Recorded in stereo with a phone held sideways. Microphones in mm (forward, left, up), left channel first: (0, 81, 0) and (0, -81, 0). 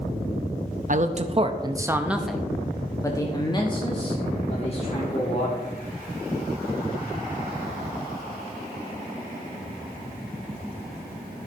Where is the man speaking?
55° right (ahead or behind), 0.8 m; by 5.6 s 45° left (ahead or behind), 2 m.